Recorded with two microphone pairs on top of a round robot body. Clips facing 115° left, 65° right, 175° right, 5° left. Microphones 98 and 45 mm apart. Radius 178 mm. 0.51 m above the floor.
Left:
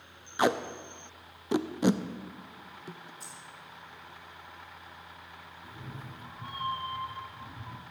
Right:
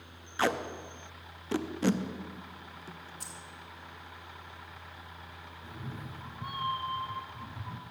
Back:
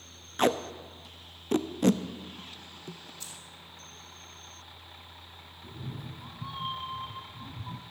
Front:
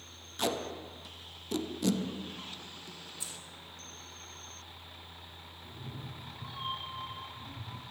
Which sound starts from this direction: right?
Keys jangling, at 3.2 s.